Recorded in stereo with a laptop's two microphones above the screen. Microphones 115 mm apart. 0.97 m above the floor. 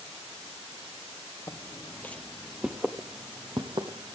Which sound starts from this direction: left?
Footsteps, at 1.5 s.